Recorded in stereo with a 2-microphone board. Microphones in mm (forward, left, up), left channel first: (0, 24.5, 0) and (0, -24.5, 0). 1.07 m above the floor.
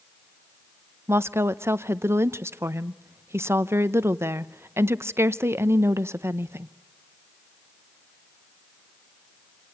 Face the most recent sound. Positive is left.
turn(degrees=-55)  # may be behind; listen again after turning